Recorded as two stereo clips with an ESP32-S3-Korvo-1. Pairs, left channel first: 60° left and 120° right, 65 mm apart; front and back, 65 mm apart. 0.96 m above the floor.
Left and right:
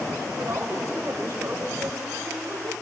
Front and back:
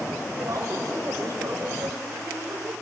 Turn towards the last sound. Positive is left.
turn(degrees=-160)